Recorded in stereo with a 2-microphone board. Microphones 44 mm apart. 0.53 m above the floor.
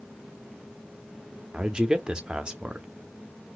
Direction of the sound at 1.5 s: 20° right (ahead or behind).